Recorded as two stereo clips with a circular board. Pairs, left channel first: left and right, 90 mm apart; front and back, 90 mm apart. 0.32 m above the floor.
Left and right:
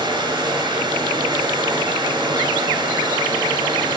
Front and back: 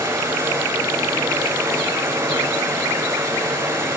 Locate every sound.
0.0 s running water: 125° right, 1.7 m